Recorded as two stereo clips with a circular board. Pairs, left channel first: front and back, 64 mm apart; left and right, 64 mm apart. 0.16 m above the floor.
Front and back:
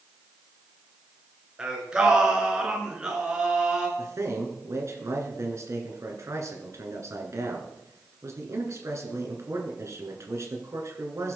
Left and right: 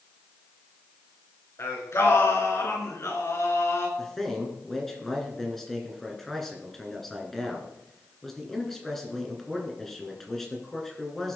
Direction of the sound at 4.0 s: 175° left.